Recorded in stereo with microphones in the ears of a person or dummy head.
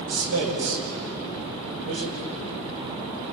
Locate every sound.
0.1 s a man speaking: 85° right, 5.5 m